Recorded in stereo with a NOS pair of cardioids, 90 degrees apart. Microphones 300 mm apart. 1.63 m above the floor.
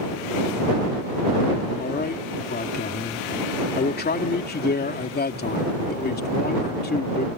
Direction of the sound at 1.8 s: 30° left.